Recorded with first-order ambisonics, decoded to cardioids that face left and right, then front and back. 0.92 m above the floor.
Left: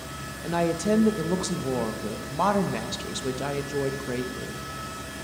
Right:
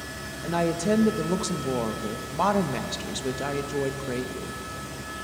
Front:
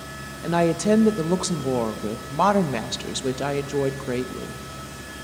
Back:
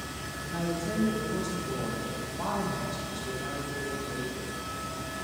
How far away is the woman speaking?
About 0.6 m.